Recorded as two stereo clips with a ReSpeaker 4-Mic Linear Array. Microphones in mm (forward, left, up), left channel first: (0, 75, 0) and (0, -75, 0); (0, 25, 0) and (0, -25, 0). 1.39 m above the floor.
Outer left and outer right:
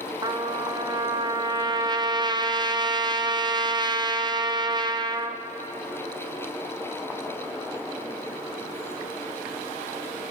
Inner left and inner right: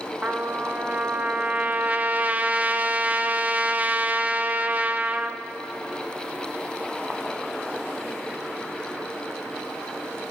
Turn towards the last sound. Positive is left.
turn(degrees=-30)  # may be behind; listen again after turning